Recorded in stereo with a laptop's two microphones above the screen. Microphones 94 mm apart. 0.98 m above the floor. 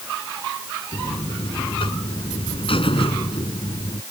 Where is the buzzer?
75° left (ahead or behind).